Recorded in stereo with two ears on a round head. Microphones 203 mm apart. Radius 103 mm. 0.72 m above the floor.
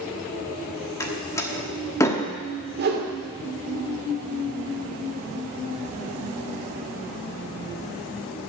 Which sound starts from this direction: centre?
A door slam, at 1.0 s.